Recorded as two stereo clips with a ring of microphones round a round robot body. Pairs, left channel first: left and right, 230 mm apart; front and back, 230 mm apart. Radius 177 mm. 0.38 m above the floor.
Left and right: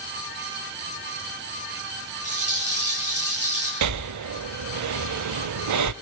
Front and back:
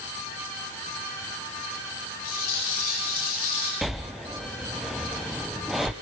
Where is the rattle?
45° right, 10 m.